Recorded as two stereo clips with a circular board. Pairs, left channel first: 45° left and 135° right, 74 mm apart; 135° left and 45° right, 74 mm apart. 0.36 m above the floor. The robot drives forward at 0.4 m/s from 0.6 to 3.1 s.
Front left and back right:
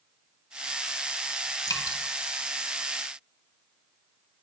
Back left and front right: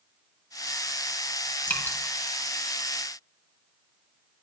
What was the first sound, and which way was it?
Dripping, 70° left.